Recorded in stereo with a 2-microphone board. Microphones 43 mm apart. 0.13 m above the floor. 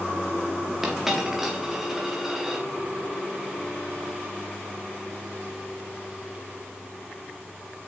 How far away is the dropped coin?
About 4 m.